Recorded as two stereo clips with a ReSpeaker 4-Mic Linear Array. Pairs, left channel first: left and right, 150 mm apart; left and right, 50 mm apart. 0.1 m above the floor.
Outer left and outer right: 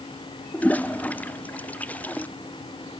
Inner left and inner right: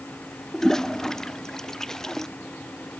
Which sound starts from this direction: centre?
A toilet flushing, at 0.5 s.